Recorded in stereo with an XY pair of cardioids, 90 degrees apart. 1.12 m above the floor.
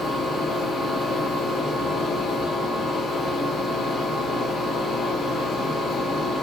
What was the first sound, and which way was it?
A fan, 70° left.